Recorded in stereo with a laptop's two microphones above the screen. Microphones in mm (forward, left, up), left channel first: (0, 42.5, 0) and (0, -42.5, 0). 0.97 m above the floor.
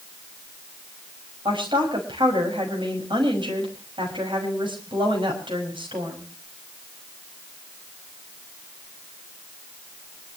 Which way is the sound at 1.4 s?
80° right.